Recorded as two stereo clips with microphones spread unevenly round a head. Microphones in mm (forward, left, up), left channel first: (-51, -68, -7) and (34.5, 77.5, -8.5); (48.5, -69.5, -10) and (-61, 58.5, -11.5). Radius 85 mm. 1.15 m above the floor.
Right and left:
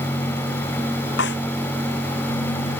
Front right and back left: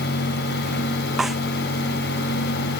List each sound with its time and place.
1.2 s a snare drum: 140° right